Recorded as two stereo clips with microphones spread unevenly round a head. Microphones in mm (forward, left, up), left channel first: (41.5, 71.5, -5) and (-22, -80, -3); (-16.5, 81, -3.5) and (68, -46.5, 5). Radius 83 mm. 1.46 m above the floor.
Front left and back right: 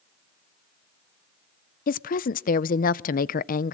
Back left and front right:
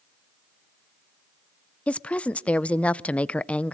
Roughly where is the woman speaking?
Ahead left.